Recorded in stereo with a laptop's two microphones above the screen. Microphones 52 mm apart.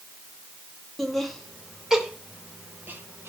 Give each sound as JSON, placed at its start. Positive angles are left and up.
{"t": 1.0, "sound": "laughter", "side_deg": 5, "distance_m": 1.6}